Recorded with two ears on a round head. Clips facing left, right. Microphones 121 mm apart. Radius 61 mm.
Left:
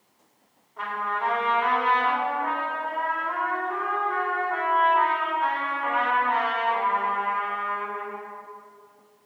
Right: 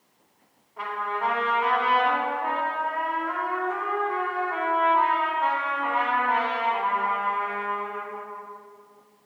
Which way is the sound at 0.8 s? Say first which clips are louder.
Even; 5° right (ahead or behind).